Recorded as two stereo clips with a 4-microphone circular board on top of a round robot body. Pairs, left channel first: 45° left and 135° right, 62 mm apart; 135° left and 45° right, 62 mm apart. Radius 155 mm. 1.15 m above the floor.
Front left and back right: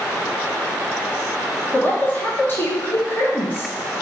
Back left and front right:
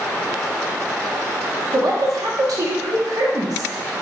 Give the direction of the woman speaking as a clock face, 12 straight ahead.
1 o'clock.